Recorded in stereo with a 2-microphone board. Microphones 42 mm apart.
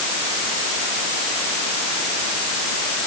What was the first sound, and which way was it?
Only background noise.